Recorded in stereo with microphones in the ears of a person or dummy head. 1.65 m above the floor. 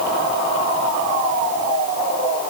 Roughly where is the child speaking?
I don't hear a child speaking.